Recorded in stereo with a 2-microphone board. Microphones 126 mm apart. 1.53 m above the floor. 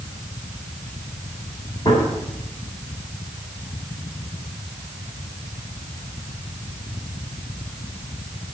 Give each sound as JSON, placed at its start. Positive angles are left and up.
{"t": 1.9, "sound": "a gunshot", "side_deg": 40, "distance_m": 3.0}